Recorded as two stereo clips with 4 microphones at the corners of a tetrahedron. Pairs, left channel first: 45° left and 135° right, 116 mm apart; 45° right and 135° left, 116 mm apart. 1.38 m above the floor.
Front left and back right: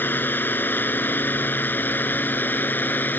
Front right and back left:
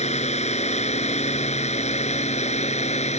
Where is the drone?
30° right.